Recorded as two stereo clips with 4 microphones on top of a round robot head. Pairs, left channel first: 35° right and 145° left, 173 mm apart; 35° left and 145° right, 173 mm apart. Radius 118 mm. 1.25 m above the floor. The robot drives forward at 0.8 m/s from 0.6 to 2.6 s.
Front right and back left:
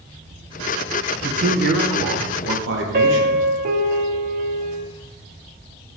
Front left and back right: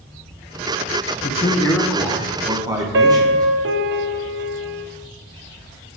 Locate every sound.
1.2 s a man speaking: 85° left, 0.7 m; by 3.5 s 145° left, 1.3 m
2.9 s a piano: 170° right, 0.6 m